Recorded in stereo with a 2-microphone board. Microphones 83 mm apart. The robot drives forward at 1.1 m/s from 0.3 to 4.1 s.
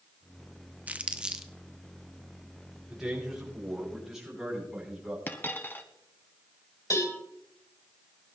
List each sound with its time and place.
0.9 s crumpling: 20° right (ahead or behind), 0.6 m; by 1.5 s 10° right (ahead or behind), 1.3 m
2.9 s a man speaking: 5° right (ahead or behind), 7.5 m
5.3 s a dropped coin: 25° left (ahead or behind), 1.3 m
6.9 s a cowbell: 45° left (ahead or behind), 3.5 m